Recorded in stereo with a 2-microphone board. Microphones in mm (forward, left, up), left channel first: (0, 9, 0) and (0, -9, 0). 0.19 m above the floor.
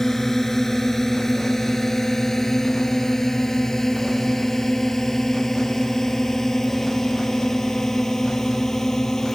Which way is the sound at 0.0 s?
20° left (ahead or behind).